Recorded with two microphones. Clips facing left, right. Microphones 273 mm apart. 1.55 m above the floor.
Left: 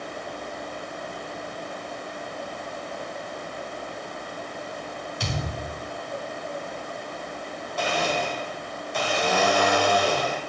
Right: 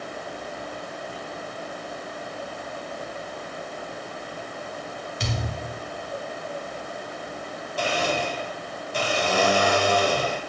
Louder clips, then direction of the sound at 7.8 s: Right 1 dB; 35° right (ahead or behind).